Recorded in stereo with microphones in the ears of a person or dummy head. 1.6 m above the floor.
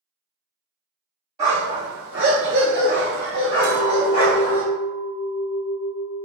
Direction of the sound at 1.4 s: 30° right (ahead or behind).